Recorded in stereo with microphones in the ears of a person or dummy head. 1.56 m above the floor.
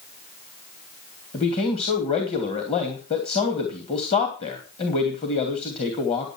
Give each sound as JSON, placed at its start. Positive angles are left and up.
{"t": 1.3, "sound": "a man speaking", "side_deg": 45, "distance_m": 2.5}